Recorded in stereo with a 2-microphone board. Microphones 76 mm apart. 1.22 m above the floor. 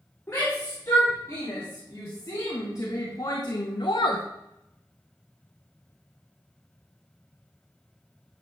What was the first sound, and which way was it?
A shout, 30° left (ahead or behind).